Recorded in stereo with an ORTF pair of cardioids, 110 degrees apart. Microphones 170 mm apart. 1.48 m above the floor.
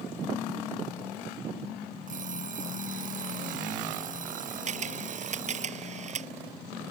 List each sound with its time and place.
2.1 s an alarm clock: 50° right
4.7 s a camera shutter: 45° right